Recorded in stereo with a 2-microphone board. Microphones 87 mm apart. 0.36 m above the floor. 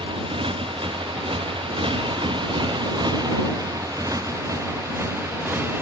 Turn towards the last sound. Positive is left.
turn(degrees=-25)  # may be behind; listen again after turning